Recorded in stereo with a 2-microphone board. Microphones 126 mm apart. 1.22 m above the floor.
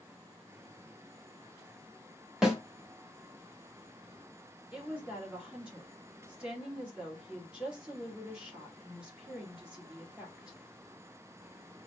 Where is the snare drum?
5° right (ahead or behind), 1.6 m.